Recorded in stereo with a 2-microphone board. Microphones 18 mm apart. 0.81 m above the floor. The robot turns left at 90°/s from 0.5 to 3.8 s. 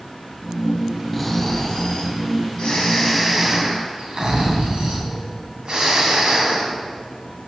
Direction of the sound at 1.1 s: Straight behind.